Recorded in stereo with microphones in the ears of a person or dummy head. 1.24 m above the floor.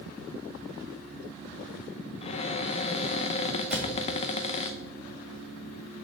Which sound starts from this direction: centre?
A cupboard door, at 3.7 s.